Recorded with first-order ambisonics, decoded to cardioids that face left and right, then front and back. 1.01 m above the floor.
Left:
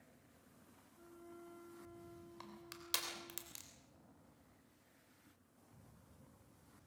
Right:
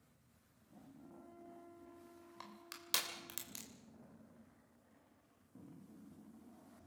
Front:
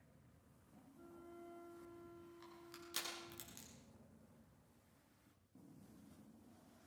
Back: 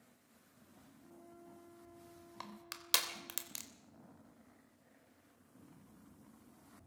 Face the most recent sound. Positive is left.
turn(degrees=-170)